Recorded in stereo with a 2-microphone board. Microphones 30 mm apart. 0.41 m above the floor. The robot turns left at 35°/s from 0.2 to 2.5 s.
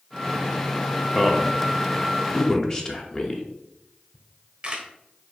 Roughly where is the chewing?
No chewing in this recording.